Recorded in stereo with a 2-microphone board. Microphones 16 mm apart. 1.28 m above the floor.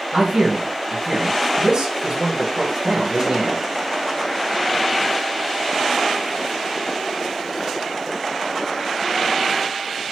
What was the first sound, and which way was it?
A man speaking, 65° right (ahead or behind).